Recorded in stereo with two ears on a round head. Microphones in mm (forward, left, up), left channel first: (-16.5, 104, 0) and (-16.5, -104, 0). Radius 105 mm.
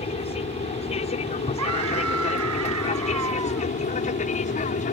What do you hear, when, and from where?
0.0 s an aircraft: 25° left (ahead or behind); by 4.9 s 35° left (ahead or behind)
1.6 s a scream: 65° right (ahead or behind)